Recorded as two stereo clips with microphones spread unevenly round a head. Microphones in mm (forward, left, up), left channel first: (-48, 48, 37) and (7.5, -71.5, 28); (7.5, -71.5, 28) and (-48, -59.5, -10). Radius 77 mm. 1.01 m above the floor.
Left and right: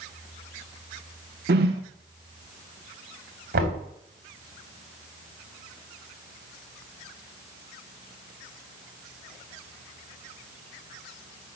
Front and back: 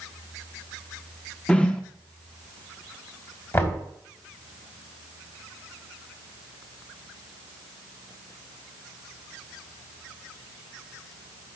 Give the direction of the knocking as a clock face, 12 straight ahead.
2 o'clock.